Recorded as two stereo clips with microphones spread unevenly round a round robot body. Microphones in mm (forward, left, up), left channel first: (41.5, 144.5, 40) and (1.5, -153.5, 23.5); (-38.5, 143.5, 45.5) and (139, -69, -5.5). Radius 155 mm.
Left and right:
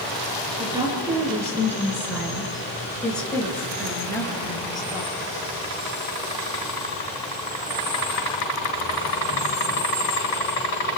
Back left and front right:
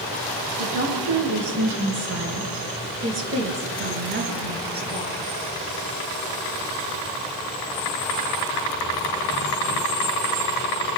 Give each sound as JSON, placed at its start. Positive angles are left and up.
{"t": 0.6, "sound": "a woman speaking", "azimuth_deg": -20, "distance_m": 7.5}